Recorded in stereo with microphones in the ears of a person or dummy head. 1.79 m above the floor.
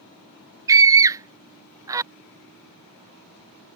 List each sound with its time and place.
0.7 s a scream: 15° right (ahead or behind)